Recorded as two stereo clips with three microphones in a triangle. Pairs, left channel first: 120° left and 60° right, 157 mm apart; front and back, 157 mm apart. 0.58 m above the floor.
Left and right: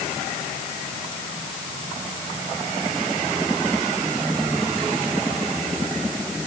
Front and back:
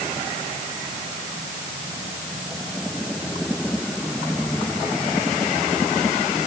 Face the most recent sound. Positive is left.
No sound to turn to.